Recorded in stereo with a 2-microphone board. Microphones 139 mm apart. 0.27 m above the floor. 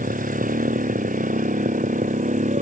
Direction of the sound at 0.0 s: 85° right.